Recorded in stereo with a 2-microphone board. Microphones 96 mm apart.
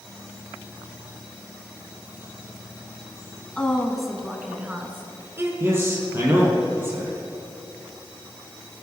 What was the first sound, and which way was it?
A woman speaking, 10° left (ahead or behind).